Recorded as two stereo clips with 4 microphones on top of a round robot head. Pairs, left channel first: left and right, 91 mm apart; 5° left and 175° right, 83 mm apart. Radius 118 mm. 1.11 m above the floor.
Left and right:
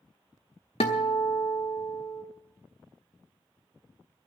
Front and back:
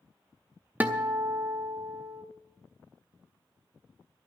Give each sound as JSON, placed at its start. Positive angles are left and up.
{"t": 0.8, "sound": "a guitar", "azimuth_deg": 120, "distance_m": 0.6}